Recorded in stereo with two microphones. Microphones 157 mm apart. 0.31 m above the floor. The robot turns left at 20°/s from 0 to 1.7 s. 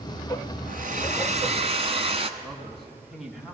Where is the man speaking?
Centre (ahead or behind), 3 m.